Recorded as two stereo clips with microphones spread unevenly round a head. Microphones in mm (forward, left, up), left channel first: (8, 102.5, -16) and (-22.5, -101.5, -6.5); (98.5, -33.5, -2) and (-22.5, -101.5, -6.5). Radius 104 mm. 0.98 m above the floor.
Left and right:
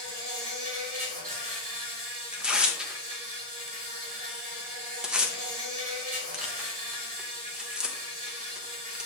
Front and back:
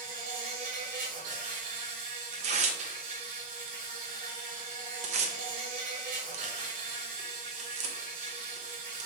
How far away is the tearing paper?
About 0.9 m.